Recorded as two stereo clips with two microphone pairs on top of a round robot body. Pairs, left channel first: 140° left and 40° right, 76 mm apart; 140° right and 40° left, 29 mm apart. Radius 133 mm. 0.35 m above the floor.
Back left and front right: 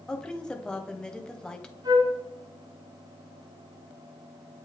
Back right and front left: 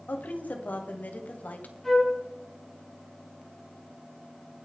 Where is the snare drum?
I don't hear a snare drum.